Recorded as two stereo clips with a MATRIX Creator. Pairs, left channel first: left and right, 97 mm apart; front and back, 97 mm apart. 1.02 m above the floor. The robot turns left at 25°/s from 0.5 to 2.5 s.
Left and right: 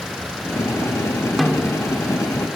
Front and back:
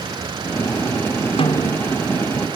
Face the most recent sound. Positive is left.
turn(degrees=-25)